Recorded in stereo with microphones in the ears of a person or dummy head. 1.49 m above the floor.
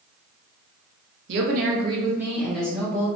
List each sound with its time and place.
1.3 s a woman speaking: 65° right (ahead or behind), 1.0 m; by 3.1 s 10° left (ahead or behind), 2 m